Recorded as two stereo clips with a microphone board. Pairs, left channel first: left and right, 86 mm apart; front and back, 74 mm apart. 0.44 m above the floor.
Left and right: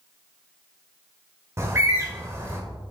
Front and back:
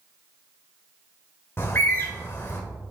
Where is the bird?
45° right, 1.8 m.